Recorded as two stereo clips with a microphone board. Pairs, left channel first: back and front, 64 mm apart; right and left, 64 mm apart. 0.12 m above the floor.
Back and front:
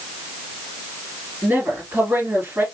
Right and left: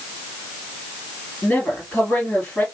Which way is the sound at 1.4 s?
35° right.